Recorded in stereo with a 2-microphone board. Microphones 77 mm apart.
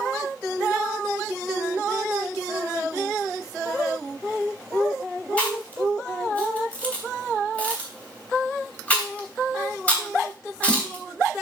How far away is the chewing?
About 3 m.